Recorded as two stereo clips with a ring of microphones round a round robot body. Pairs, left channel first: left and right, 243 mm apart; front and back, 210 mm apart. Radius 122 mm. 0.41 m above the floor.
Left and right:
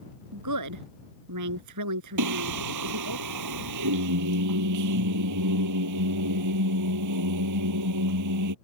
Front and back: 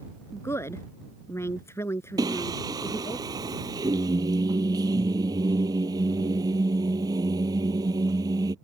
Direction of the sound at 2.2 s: 105° right.